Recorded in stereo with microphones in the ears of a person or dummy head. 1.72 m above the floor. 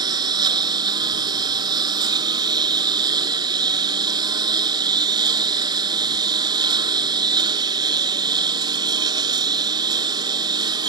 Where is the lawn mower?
20° right (ahead or behind).